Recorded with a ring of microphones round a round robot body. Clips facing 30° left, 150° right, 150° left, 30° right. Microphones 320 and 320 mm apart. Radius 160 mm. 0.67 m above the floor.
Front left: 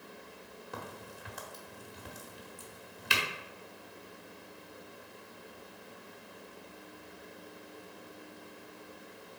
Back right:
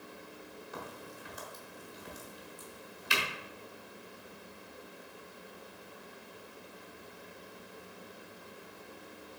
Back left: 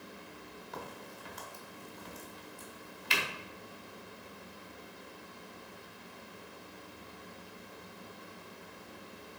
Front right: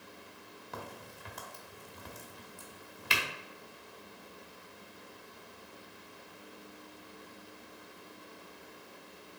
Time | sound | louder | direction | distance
0.7 | a crack | front left 1 dB, even | 10° right | 1.4 m